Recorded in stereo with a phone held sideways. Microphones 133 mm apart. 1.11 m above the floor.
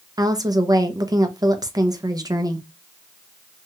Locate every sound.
0.2 s a woman speaking: 25° right (ahead or behind), 0.5 m